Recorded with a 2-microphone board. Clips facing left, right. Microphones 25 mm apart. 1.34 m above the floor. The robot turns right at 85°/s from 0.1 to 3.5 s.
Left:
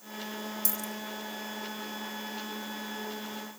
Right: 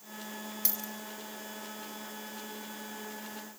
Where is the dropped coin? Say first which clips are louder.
Left 2 dB; 35° right (ahead or behind), 2.5 m; by 0.9 s 15° right (ahead or behind), 2.5 m.